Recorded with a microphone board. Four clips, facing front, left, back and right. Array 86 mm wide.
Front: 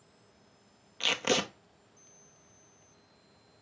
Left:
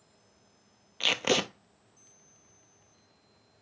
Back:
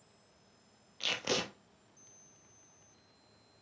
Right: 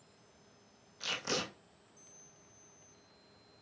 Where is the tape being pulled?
65° left, 0.8 m.